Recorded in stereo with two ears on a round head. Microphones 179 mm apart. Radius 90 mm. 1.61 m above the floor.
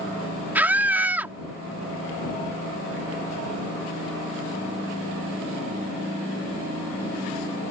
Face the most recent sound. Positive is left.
turn(degrees=-10)  # may be behind; listen again after turning